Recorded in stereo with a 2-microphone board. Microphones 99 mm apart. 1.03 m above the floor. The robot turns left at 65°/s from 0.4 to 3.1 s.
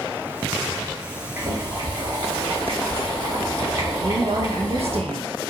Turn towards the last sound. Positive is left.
turn(degrees=-80)